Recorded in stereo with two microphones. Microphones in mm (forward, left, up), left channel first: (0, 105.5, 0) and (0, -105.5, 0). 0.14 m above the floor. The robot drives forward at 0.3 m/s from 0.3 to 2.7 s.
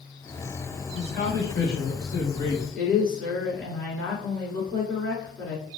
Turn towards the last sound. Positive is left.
turn(degrees=5)  # may be behind; listen again after turning